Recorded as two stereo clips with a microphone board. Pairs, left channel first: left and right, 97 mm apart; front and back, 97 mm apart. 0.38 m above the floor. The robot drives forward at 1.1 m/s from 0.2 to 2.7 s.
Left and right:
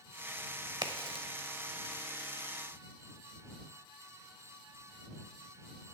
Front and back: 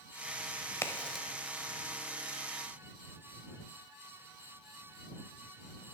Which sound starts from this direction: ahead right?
A crack, at 0.8 s.